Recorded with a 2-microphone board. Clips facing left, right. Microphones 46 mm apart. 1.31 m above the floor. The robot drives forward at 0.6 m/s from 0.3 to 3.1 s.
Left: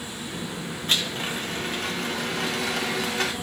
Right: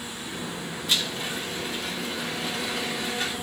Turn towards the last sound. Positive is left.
turn(degrees=80)